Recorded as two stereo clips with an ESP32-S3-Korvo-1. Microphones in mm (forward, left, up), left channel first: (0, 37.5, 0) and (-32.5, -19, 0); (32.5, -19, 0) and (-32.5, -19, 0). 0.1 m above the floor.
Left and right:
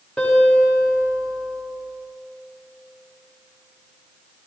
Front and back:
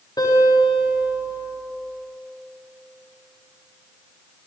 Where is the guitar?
15° right, 9 m.